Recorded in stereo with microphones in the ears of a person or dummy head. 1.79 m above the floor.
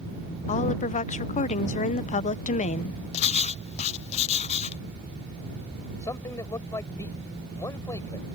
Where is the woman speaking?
35° left (ahead or behind).